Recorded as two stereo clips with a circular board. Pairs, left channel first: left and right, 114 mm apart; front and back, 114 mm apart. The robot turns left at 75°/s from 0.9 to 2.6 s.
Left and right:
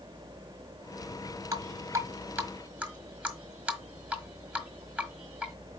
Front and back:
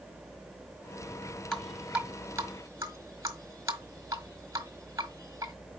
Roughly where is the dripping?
Right.